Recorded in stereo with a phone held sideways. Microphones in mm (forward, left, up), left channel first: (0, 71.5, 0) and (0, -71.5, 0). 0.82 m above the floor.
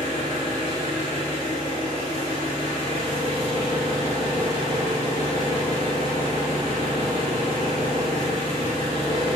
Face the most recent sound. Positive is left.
turn(degrees=40)  # may be behind; listen again after turning